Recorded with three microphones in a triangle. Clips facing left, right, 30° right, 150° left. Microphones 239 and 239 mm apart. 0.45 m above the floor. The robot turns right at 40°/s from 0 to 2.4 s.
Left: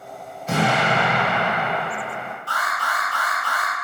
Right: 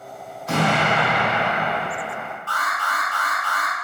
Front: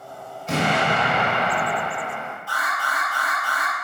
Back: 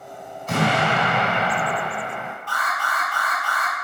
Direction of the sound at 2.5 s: 45° left.